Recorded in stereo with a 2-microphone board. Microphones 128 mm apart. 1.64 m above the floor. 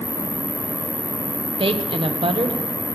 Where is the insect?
70° left (ahead or behind), 1.3 m.